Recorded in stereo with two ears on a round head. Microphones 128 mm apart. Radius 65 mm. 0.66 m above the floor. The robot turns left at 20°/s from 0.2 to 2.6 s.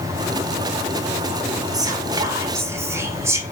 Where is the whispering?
25° right (ahead or behind), 0.7 m; by 3.4 s 20° right (ahead or behind), 0.7 m.